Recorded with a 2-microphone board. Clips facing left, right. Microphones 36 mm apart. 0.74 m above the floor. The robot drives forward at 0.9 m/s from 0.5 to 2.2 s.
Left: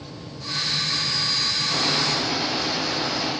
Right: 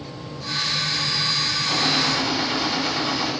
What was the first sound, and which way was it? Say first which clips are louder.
A gunshot: right 3 dB; 55° right (ahead or behind).